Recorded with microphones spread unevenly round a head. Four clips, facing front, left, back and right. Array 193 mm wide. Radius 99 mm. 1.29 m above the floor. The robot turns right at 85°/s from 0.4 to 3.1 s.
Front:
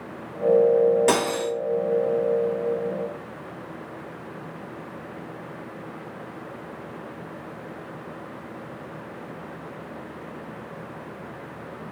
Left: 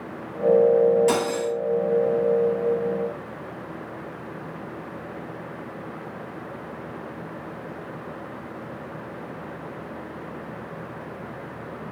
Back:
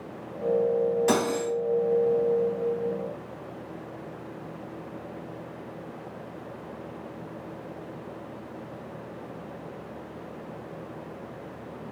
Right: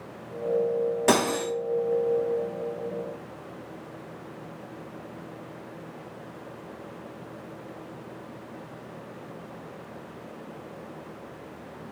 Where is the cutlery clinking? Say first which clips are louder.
Even, front 2 dB; 50° right, 1.6 m; by 1.5 s 10° right, 1.6 m.